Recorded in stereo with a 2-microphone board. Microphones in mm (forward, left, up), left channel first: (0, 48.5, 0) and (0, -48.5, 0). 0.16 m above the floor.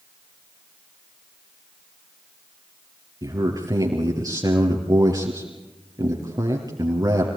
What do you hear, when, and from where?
3.2 s a man speaking: 40° right (ahead or behind), 3 m